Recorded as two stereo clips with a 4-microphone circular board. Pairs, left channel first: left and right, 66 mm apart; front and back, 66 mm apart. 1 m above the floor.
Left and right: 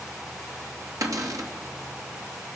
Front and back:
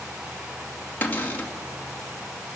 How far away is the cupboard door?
About 1.8 m.